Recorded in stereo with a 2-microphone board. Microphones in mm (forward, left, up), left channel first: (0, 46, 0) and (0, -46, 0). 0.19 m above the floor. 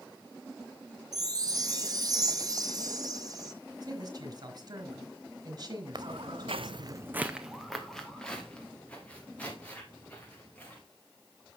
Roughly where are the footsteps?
Right.